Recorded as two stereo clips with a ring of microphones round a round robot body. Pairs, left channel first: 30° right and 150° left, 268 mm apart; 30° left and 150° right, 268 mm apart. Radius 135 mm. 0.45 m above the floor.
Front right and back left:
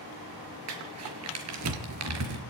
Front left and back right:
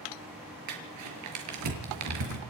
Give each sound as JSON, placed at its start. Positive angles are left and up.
{"t": 0.7, "sound": "crumpling", "azimuth_deg": -175, "distance_m": 5.0}